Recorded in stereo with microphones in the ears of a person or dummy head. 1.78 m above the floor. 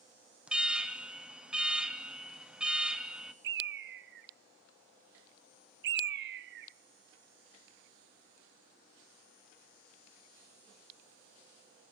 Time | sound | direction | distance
0.5 | an alarm | 5° right (ahead or behind) | 0.8 m
3.4 | a bird | 60° right (ahead or behind) | 0.8 m